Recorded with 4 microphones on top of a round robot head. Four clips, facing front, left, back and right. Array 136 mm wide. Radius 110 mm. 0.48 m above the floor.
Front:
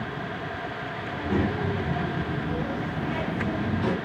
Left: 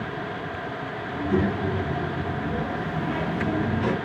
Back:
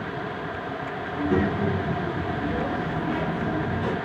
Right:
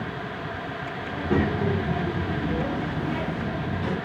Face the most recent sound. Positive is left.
turn(degrees=80)